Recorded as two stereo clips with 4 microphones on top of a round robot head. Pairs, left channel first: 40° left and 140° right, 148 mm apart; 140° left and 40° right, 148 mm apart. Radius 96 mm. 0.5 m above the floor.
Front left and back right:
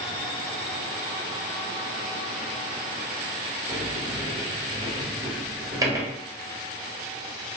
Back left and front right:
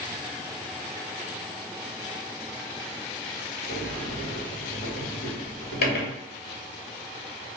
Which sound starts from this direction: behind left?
A sliding door, at 3.7 s.